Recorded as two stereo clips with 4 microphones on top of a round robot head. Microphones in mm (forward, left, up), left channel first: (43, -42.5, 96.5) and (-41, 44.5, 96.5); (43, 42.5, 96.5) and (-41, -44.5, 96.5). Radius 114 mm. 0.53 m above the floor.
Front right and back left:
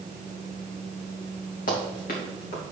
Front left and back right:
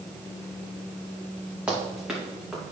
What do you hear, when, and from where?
1.7 s running footsteps: 55° right, 3 m; by 2.7 s 45° right, 3.5 m